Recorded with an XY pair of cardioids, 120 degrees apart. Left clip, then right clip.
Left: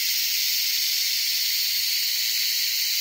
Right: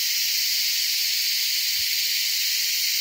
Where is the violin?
I don't hear a violin.